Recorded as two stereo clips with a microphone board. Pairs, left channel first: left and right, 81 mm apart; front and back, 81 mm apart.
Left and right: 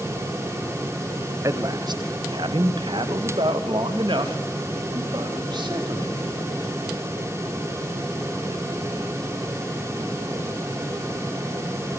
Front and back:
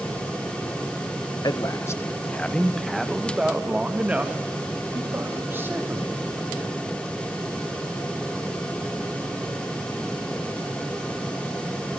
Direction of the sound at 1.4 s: 40° right.